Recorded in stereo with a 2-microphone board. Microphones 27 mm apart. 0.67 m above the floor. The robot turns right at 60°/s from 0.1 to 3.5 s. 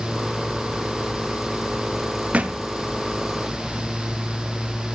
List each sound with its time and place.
2.3 s a thud: 55° right (ahead or behind), 0.6 m; by 2.6 s 75° right (ahead or behind), 0.6 m